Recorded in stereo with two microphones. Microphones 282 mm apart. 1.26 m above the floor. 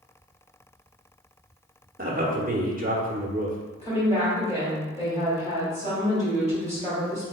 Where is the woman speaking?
20° left (ahead or behind), 1.9 m.